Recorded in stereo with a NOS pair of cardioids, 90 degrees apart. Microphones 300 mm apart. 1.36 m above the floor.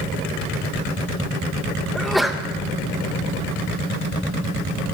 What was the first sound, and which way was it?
A sneeze, straight ahead.